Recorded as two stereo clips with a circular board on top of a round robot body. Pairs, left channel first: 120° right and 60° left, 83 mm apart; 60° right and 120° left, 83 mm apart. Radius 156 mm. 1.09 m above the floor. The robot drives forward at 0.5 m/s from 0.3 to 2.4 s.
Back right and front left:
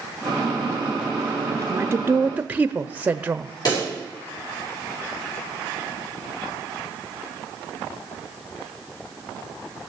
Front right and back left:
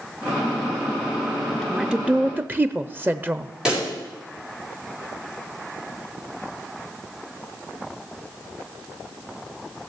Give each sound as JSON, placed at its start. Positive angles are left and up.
{"t": 1.5, "sound": "a woman speaking", "azimuth_deg": 30, "distance_m": 0.8}
{"t": 3.6, "sound": "a pop", "azimuth_deg": -160, "distance_m": 4.5}